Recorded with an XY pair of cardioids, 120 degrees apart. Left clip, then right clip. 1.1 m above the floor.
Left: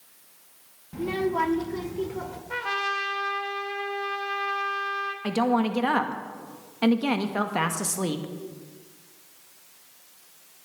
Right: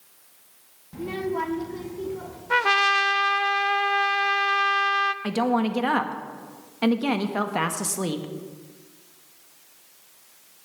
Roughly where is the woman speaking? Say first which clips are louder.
Even; ahead.